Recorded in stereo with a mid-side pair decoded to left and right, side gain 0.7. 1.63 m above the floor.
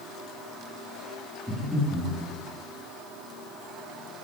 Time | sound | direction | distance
1.5 | breathing | 20° right | 1.9 m